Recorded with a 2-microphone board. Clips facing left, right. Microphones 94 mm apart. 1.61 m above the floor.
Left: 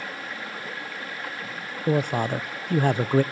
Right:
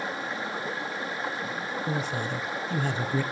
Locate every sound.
0.0 s running water: 20° right (ahead or behind), 1.2 m
1.9 s a man speaking: 55° left (ahead or behind), 0.7 m